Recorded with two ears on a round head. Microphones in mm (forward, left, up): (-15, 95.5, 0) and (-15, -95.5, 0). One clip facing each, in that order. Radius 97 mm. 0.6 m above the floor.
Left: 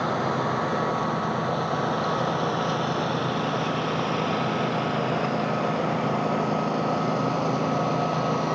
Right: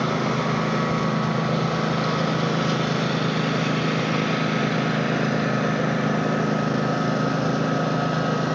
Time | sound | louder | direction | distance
0.0 | a lawn mower | right 2 dB | 35° right (ahead or behind) | ?